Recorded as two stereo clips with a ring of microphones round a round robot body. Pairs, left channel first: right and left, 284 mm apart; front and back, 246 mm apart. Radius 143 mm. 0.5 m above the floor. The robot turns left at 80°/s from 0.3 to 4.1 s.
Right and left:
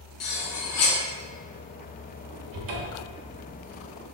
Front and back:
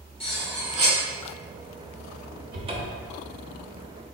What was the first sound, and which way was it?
Cutlery clinking, 65° right.